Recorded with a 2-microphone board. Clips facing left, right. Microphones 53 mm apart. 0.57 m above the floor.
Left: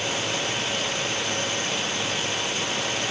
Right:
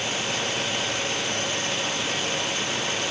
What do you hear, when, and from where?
Only background noise.